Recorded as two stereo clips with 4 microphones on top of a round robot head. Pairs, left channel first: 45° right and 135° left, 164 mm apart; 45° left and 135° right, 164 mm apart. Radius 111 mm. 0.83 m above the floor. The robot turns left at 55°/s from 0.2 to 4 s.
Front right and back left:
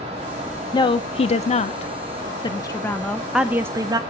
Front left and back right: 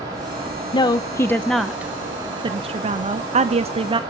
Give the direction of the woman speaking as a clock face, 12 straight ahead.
12 o'clock.